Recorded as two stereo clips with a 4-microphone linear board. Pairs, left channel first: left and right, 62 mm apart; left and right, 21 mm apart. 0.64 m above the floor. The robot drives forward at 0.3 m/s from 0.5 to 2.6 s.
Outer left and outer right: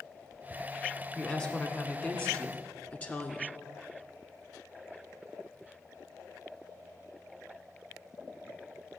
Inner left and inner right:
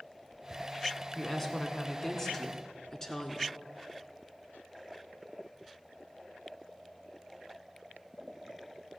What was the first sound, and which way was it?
A woman speaking, 25° left (ahead or behind).